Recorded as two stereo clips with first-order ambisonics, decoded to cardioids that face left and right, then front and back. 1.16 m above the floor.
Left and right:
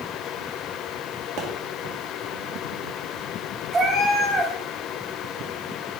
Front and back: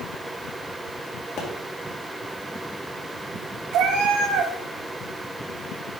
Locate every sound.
1.4 s a pop: 50° right, 2.5 m
3.7 s a cat meowing: 160° right, 1.7 m